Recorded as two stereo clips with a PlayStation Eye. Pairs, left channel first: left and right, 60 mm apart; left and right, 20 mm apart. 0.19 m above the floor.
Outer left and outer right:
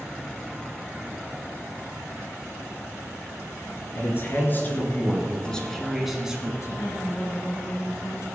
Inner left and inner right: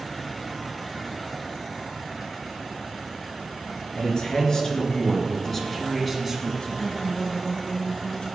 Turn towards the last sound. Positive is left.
turn(degrees=60)  # may be behind; listen again after turning